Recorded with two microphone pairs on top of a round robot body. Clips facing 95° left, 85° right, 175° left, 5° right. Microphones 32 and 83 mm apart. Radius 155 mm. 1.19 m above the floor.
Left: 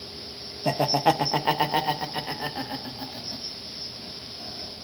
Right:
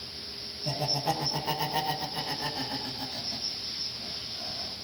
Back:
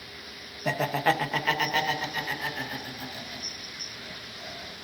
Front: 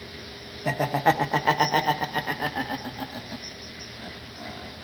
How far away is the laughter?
About 0.9 m.